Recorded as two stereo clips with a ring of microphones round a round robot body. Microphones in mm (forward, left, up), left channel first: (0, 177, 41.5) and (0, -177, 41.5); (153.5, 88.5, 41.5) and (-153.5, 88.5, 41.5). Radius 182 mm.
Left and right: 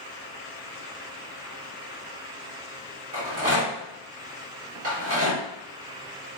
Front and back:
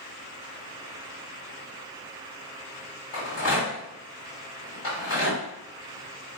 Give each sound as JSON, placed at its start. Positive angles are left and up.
{"t": 3.1, "sound": "a rattle", "azimuth_deg": -35, "distance_m": 1.8}